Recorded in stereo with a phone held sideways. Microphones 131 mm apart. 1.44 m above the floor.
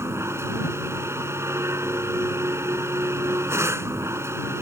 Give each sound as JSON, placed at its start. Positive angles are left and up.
{"t": 0.0, "sound": "a machine running", "side_deg": -20}